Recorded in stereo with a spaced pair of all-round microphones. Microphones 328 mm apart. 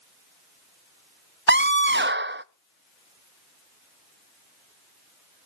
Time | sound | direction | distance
1.5 | a scream | 35° right (ahead or behind) | 0.6 m